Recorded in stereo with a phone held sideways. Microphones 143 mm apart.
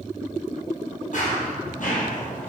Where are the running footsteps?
60° left (ahead or behind), 3 m.